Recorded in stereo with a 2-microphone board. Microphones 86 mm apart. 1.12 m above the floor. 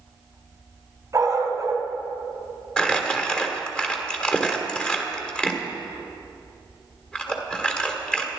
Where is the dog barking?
35° right (ahead or behind), 2.5 m.